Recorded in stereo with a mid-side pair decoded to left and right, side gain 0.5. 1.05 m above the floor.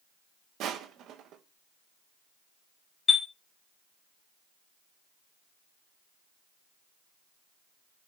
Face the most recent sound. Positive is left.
turn(degrees=35)